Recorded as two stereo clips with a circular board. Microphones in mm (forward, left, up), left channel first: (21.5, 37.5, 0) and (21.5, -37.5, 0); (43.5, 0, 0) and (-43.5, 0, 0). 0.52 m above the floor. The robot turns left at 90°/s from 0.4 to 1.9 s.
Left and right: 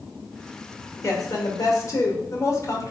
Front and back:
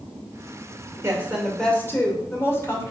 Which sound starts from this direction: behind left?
A woman speaking, at 1.0 s.